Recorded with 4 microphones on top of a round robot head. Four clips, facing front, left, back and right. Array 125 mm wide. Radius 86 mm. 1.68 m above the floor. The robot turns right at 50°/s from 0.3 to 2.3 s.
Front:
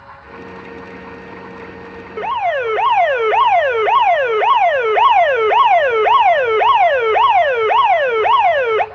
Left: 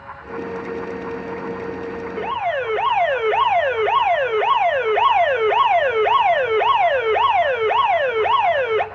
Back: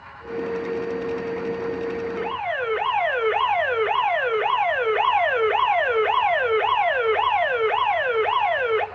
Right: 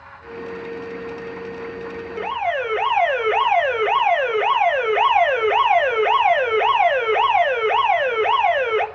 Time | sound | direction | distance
2.2 | an alarm | 5° left | 1.1 m